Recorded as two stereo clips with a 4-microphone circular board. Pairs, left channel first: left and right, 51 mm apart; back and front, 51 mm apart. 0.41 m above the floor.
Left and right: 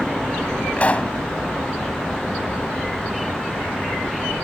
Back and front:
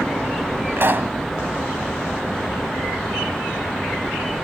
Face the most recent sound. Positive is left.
turn(degrees=35)